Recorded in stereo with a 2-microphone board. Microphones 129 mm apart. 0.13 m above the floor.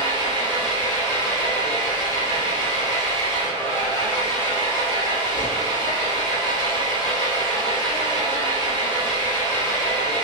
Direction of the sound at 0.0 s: 35° right (ahead or behind).